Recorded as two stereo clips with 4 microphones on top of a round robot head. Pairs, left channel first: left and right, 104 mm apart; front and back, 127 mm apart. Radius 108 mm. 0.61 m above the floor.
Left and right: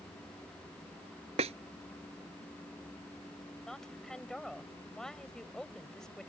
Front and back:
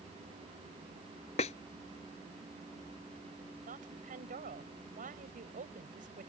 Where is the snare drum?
50° right.